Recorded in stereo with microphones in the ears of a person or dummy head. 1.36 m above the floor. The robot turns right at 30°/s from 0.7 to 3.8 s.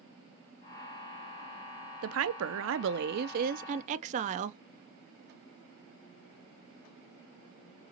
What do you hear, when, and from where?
2.0 s a woman speaking: 95° right, 0.6 m; by 4.6 s 40° right, 0.6 m